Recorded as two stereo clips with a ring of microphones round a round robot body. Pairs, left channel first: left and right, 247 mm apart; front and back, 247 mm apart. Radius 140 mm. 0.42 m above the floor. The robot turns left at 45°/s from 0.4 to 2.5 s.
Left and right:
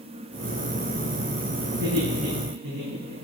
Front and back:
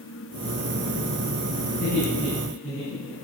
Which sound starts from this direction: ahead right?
Laughter, at 1.7 s.